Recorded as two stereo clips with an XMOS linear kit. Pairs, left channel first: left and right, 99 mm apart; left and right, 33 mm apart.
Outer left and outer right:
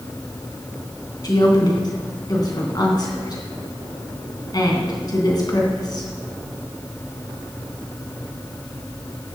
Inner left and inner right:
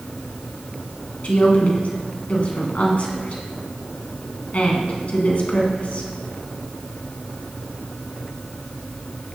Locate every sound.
1.2 s a woman speaking: 45° left (ahead or behind), 2.5 m